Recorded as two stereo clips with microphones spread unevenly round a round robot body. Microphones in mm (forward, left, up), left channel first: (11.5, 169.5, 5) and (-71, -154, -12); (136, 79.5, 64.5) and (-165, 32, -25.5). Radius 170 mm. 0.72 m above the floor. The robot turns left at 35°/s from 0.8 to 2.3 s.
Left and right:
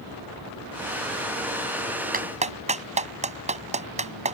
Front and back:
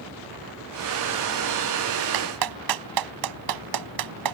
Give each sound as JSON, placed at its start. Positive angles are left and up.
{"t": 2.1, "sound": "a clap", "azimuth_deg": -170}